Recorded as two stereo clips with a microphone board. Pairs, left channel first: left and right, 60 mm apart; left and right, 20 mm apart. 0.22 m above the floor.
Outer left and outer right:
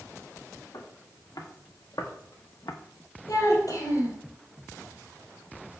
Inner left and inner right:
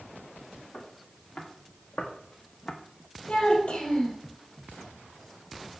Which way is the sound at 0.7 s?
85° left.